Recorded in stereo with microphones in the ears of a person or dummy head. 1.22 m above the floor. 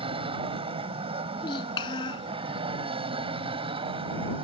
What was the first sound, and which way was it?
An aircraft, 30° right (ahead or behind).